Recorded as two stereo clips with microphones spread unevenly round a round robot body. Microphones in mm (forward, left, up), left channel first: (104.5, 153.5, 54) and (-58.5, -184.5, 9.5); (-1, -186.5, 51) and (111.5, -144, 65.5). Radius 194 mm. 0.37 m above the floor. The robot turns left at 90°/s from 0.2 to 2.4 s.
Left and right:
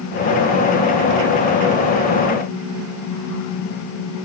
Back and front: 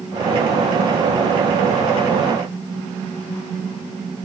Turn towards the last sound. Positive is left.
No sound to turn to.